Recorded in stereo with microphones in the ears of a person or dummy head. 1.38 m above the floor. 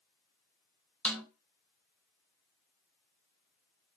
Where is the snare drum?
5° left (ahead or behind), 1.3 m.